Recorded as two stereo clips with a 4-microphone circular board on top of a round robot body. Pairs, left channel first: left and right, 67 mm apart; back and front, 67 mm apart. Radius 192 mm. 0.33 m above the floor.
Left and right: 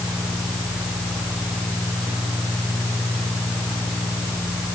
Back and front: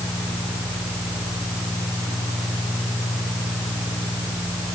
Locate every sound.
Only background noise.